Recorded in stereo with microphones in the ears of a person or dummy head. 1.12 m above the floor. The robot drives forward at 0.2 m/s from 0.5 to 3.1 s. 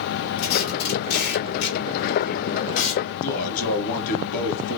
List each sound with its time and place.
0.4 s tape being pulled: 55° left (ahead or behind), 1.2 m; by 3.0 s 80° left, 1.0 m
3.2 s a man speaking: 45° left (ahead or behind), 0.8 m